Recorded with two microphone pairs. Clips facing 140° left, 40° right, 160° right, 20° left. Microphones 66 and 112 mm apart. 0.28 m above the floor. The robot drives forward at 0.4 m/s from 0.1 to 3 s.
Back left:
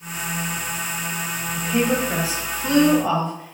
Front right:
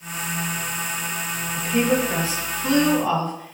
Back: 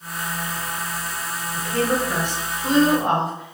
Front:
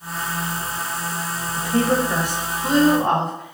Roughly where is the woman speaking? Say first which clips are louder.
Even, front 3 dB; ahead left.